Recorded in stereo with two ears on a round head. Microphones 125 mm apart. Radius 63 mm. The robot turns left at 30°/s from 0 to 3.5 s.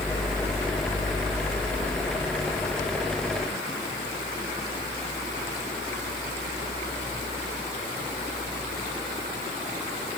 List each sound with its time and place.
Only background noise.